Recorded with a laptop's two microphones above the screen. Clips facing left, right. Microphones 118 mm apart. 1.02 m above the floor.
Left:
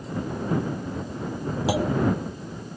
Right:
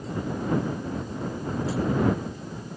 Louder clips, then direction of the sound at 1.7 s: Left 3 dB; 85° left.